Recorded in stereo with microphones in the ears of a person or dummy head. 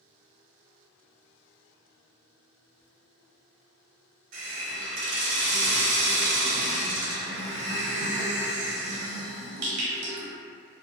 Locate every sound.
4.3 s a hiss: 70° right (ahead or behind), 0.7 m